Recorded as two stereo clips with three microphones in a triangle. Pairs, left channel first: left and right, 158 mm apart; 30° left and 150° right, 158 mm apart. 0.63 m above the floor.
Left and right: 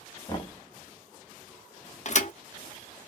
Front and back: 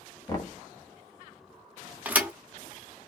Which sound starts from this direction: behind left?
A thud, at 2.0 s.